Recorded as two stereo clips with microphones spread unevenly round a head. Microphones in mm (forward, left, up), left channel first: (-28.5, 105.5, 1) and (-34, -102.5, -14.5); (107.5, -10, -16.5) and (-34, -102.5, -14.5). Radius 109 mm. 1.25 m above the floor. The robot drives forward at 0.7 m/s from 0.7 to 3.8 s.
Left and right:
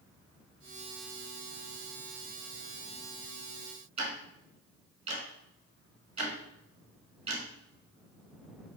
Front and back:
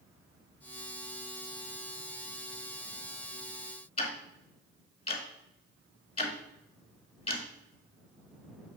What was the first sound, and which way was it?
Ticking, 25° right.